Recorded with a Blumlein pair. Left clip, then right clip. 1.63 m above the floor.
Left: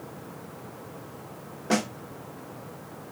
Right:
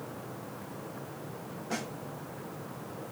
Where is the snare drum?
55° left, 0.6 m.